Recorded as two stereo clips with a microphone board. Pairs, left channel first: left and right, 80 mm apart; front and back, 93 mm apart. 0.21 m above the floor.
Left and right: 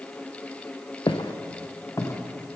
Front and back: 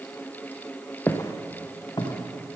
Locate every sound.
1.1 s footsteps: 65° left, 1.2 m; by 2.6 s 35° left, 3.5 m